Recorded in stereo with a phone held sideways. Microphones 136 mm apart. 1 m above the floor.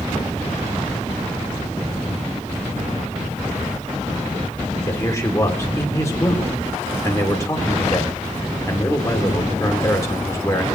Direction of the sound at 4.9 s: 20° left (ahead or behind).